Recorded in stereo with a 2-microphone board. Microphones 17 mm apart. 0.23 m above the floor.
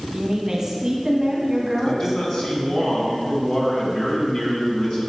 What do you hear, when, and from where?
0.1 s a woman speaking: 25° right (ahead or behind), 1.7 m
1.8 s a man speaking: 45° left (ahead or behind), 2 m